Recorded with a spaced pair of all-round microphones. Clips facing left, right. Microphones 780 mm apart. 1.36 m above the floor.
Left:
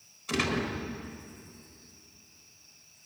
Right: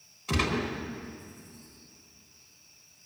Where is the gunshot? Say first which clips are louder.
Even; 75° right (ahead or behind), 4 m.